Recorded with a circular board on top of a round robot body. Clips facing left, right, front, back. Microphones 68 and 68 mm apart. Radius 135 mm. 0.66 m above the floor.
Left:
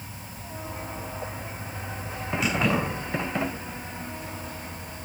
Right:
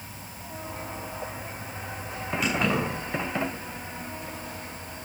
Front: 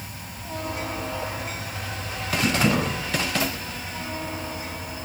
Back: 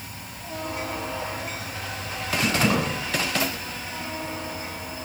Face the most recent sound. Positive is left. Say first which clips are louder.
# left 1 dB, front 1 dB
turn(degrees=180)